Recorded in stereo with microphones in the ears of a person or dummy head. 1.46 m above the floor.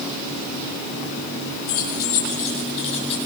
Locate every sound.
1.7 s keys jangling: 50° left (ahead or behind), 7 m; by 3.1 s 35° left (ahead or behind), 7.5 m